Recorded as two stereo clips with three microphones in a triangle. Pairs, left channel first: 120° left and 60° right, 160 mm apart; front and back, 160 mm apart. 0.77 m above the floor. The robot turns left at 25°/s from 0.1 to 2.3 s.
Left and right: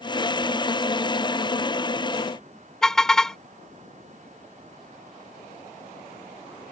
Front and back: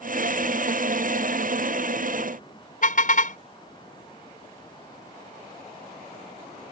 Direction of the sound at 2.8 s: 35° left.